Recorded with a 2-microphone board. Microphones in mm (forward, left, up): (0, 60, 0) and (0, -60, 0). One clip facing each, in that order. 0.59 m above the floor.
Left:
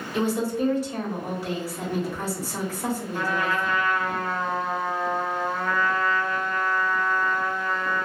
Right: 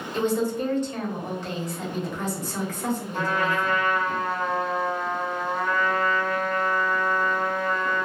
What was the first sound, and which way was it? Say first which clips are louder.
A woman speaking: even; 10° left (ahead or behind).